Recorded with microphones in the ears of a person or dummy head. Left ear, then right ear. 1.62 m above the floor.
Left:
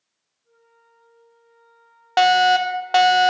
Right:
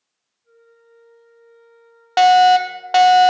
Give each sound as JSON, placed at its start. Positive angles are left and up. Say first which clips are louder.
{"t": 0.4, "sound": "a flute", "louder": "right 6 dB", "side_deg": -50, "distance_m": 6.5}
{"t": 2.2, "sound": "a fire alarm", "louder": "right 4 dB", "side_deg": 0, "distance_m": 0.7}